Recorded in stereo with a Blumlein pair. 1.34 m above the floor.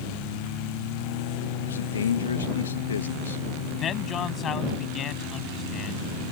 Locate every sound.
1.6 s a man speaking: 65° left
3.8 s a man speaking: 25° left